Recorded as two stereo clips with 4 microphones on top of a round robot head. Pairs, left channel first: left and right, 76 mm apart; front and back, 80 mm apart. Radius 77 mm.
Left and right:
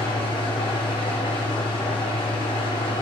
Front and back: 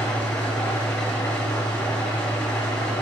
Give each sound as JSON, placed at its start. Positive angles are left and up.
{"t": 0.0, "sound": "an engine running", "azimuth_deg": 75, "distance_m": 2.0}